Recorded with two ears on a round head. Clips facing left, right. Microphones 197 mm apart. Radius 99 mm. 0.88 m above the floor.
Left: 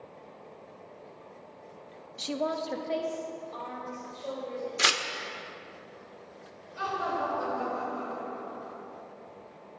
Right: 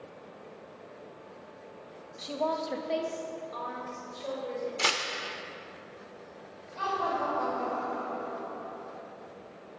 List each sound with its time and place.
2.2 s a woman speaking: 40° left (ahead or behind), 0.6 m; by 4.7 s 15° right (ahead or behind), 4 m
4.8 s tearing paper: 20° left (ahead or behind), 0.5 m
6.8 s laughter: 10° left (ahead or behind), 3 m